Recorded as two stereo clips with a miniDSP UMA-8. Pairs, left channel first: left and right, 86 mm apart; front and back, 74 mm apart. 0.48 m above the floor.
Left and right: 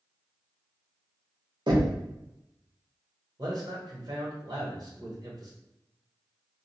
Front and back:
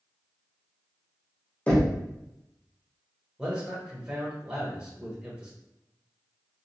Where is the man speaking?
105° right, 1.3 m.